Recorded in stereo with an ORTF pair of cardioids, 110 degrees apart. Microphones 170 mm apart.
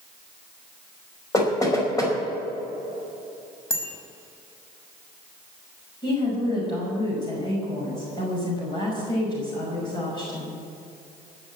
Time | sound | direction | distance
1.3 | knocking | 20° left | 5 m
3.7 | a bicycle bell | 15° left | 5 m
6.0 | a woman speaking | 25° left | 5.5 m